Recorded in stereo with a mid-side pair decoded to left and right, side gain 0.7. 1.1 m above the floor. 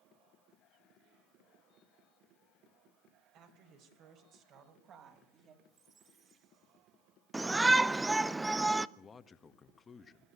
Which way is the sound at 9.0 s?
30° left.